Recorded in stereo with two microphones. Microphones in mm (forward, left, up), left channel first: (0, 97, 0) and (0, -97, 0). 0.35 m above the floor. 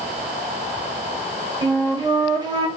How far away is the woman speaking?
I don't hear a woman speaking.